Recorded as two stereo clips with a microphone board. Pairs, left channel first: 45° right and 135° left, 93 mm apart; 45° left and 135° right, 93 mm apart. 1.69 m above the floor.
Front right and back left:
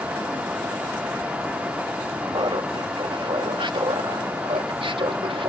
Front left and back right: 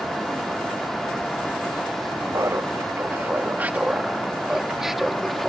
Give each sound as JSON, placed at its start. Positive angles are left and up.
{"t": 2.3, "sound": "laughter", "azimuth_deg": 170}